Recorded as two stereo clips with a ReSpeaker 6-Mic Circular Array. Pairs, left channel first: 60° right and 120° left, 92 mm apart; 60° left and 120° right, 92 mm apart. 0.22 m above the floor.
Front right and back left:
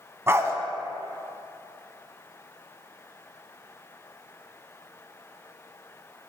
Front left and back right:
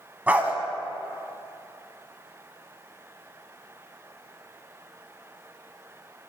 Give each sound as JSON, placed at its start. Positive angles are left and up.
{"t": 0.3, "sound": "a dog barking", "azimuth_deg": 170, "distance_m": 0.6}